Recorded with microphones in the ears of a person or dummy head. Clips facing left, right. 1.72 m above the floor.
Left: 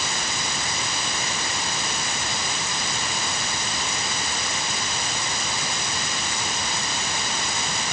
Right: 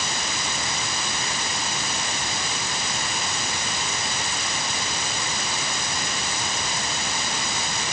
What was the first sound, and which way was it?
Only background noise.